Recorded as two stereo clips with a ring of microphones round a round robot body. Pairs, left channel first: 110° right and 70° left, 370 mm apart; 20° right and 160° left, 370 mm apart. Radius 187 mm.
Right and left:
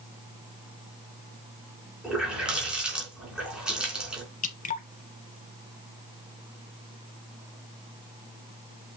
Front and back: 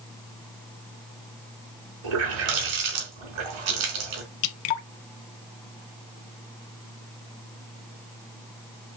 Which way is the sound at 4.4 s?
40° right.